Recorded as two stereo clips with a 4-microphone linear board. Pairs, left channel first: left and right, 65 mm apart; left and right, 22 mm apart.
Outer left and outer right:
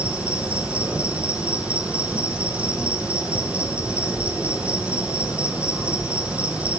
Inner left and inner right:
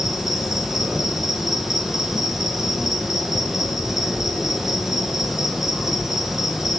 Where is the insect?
20° right (ahead or behind), 1.0 m.